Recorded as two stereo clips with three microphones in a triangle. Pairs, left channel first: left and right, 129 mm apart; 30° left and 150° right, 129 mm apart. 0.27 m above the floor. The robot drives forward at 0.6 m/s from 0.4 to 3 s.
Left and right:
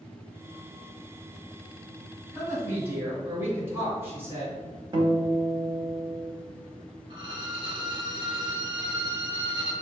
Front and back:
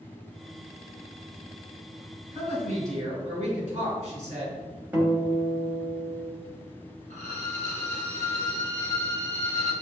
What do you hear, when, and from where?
2.3 s a woman speaking: 155° right, 1.6 m; by 4.6 s 160° right, 1.9 m
4.9 s a guitar: 80° right, 0.9 m
7.1 s a violin: 140° right, 0.6 m